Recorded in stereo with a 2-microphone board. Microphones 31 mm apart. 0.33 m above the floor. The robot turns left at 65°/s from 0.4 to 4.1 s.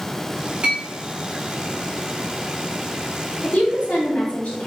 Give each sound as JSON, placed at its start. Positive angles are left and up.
{"t": 0.6, "sound": "a clink", "side_deg": -45, "distance_m": 1.8}
{"t": 3.4, "sound": "a woman speaking", "azimuth_deg": 105, "distance_m": 1.8}